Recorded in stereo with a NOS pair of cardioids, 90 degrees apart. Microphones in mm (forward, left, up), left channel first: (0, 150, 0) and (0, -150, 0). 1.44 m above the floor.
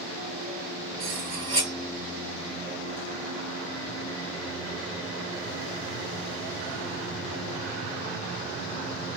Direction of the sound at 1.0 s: 65° right.